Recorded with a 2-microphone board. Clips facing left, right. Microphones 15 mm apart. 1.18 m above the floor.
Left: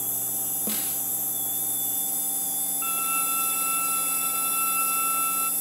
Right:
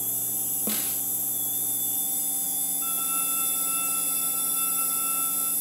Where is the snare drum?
Centre (ahead or behind), 1.1 m.